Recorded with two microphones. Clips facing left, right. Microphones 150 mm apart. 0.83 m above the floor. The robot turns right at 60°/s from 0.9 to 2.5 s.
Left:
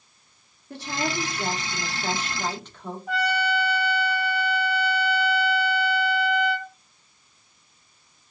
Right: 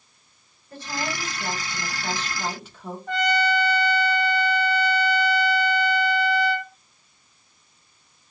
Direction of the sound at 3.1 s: 5° left (ahead or behind).